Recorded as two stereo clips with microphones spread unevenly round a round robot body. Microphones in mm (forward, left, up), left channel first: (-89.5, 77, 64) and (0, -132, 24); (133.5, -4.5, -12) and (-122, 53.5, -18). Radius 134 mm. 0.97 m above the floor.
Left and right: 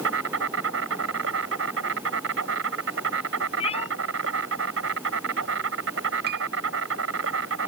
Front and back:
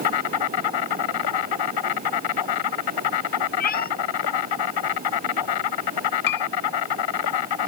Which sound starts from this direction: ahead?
A piano, at 6.3 s.